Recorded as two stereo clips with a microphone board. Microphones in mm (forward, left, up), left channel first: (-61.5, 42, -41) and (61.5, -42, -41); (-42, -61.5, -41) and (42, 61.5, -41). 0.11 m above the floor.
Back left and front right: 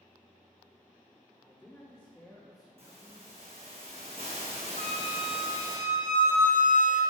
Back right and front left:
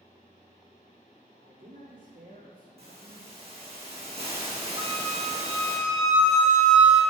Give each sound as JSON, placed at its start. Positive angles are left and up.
{"t": 1.4, "sound": "a man speaking", "azimuth_deg": 65, "distance_m": 3.5}
{"t": 2.8, "sound": "a hiss", "azimuth_deg": 10, "distance_m": 4.0}
{"t": 4.8, "sound": "a flute", "azimuth_deg": 120, "distance_m": 2.5}